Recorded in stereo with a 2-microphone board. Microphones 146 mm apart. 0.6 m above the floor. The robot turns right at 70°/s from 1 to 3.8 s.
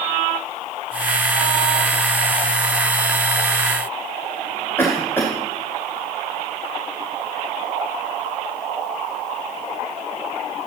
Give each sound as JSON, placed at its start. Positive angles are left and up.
{"t": 4.8, "sound": "a cough", "side_deg": 15, "distance_m": 2.0}